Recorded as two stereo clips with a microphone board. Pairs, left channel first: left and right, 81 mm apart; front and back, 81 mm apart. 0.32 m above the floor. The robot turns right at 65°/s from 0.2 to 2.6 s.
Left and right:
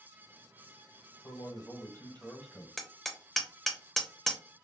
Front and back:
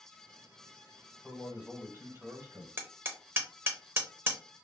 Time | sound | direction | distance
1.2 | a man speaking | 85° left | 1.2 m
2.8 | hammering | 170° left | 0.7 m